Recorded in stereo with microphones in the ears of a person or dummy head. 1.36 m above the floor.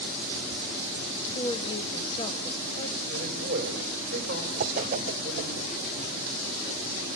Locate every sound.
1.4 s a woman speaking: 30° left (ahead or behind), 1.5 m
3.1 s a man speaking: 40° right (ahead or behind), 5 m
4.6 s a whoosh: 40° right (ahead or behind), 0.5 m